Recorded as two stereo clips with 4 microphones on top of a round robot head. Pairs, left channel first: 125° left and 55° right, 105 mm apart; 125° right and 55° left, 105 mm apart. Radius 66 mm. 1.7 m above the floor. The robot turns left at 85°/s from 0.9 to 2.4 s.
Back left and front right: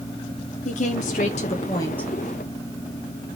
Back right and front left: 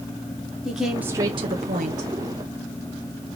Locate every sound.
0.7 s a woman speaking: 140° left, 1.3 m; by 2.1 s 40° left, 1.3 m